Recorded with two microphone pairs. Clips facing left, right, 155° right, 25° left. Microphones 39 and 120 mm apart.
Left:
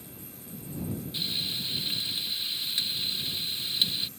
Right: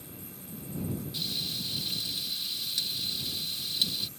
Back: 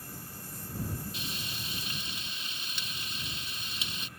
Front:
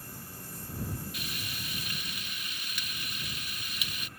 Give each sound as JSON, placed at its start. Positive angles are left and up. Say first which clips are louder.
{"t": 1.1, "sound": "frying", "louder": "left 2 dB, even", "azimuth_deg": 145}